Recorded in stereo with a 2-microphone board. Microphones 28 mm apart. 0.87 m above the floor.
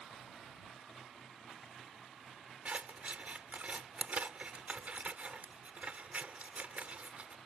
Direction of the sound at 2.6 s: 55° right (ahead or behind).